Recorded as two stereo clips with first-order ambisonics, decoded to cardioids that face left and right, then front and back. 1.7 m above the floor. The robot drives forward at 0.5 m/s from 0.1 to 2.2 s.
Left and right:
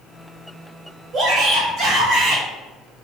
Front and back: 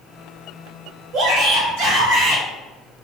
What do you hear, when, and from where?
1.1 s a shout: 150° right, 0.6 m; by 2.4 s 165° right, 1.1 m